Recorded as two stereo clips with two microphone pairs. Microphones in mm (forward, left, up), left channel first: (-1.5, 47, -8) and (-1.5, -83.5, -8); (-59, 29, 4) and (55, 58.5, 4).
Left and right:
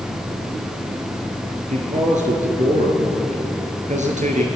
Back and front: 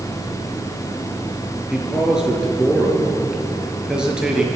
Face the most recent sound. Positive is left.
turn(degrees=-70)